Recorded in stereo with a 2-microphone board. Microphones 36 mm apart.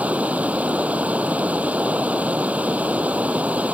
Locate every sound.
0.0 s running water: 40° right (ahead or behind)